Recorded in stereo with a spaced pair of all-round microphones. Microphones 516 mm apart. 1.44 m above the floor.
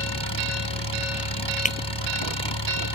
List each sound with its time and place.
0.0 s an engine running: 55° left (ahead or behind)
1.6 s breaking glass: 15° left (ahead or behind)